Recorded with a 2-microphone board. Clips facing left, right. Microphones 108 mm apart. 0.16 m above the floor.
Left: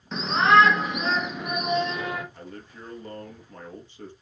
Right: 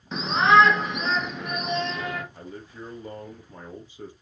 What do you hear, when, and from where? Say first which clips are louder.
0.1 s a shout: even; 5° right (ahead or behind), 1.8 m; by 2.2 s 15° left (ahead or behind), 3 m
2.3 s a man speaking: right 2 dB; 10° right (ahead or behind), 3.5 m